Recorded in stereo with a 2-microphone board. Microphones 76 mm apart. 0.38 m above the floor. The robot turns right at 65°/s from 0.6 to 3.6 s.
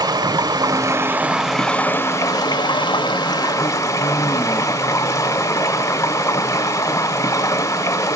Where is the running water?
60° right, 0.8 m; by 8.2 s 135° left, 0.8 m.